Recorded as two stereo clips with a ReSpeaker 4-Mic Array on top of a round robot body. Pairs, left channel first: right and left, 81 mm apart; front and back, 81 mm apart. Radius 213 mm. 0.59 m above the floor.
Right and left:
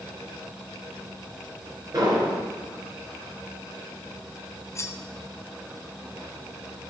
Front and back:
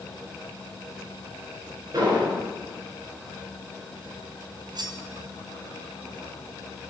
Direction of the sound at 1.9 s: 135° left.